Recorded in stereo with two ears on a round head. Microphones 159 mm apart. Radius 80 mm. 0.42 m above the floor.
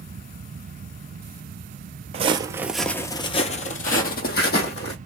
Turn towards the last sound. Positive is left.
turn(degrees=65)  # may be behind; listen again after turning